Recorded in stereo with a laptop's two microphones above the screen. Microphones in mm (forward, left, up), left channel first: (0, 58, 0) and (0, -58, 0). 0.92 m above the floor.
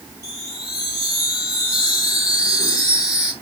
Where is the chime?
30° left (ahead or behind), 2.5 m.